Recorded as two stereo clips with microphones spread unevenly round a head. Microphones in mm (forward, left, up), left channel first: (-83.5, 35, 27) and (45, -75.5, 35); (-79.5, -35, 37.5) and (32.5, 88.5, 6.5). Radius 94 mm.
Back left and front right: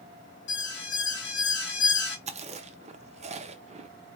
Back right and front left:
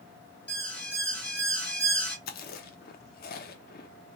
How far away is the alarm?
About 2 m.